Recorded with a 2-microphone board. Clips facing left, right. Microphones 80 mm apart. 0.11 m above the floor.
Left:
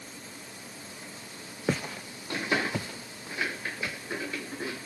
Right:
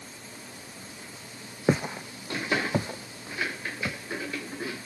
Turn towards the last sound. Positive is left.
turn(degrees=-35)  # may be behind; listen again after turning